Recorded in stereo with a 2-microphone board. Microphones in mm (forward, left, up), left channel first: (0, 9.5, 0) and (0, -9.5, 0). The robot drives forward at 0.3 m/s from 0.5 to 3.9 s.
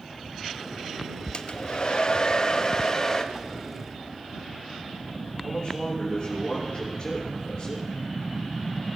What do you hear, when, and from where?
1.3 s a hair dryer: 55° left (ahead or behind), 0.6 m; by 3.2 s 30° left (ahead or behind), 1.0 m
3.3 s a whoosh: 25° right (ahead or behind), 0.6 m
5.4 s a man speaking: 35° left (ahead or behind), 3.5 m